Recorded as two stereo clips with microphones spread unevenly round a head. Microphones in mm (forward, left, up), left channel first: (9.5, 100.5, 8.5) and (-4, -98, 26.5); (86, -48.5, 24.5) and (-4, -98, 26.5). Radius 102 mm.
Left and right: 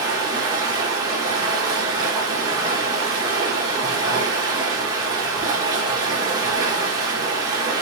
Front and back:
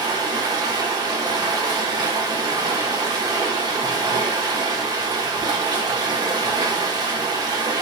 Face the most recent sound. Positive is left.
turn(degrees=-145)